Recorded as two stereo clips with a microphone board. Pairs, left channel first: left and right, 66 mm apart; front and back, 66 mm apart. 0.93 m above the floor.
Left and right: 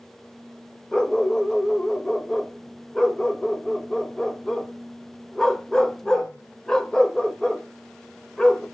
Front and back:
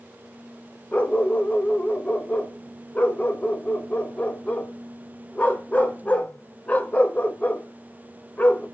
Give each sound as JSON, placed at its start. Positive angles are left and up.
{"t": 0.9, "sound": "a dog barking", "azimuth_deg": 25, "distance_m": 0.7}